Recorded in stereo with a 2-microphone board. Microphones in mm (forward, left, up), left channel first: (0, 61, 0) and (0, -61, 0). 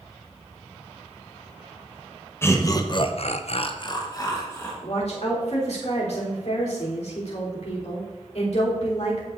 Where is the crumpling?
I don't hear crumpling.